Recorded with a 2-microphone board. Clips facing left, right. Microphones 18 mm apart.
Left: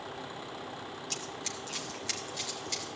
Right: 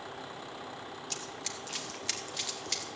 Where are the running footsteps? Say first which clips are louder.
Left 1 dB; 10° left (ahead or behind), 2.5 m; by 2.9 s 20° right (ahead or behind), 4 m.